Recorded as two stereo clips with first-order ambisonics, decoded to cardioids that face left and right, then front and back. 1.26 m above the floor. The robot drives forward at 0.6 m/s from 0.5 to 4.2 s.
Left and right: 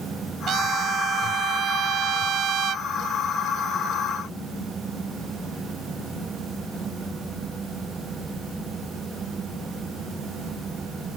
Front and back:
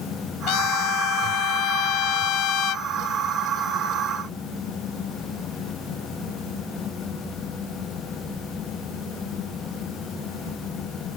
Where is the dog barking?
I don't hear a dog barking.